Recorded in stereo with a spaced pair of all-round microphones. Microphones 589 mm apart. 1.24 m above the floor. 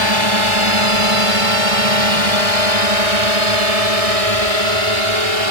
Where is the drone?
50° right (ahead or behind); by 5.5 s 65° right (ahead or behind).